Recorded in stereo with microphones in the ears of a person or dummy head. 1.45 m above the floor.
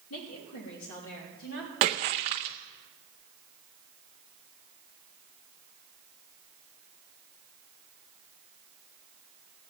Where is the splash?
25° right (ahead or behind), 0.7 m.